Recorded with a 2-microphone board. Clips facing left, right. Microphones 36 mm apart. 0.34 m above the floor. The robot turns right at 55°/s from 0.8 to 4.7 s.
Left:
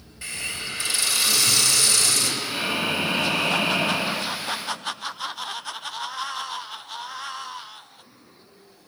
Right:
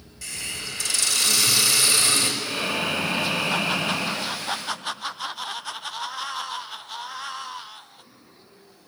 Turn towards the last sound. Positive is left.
turn(degrees=120)